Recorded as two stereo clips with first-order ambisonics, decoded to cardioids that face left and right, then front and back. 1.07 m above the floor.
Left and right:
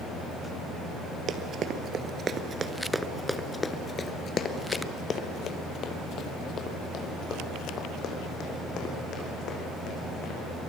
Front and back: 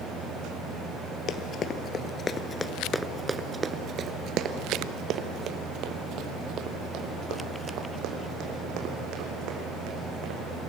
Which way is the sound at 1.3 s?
45° right.